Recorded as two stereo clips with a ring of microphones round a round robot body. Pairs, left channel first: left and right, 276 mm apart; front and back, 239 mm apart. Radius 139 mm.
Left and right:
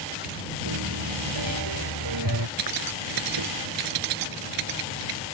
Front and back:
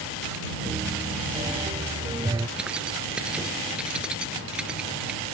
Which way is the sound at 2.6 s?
95° right.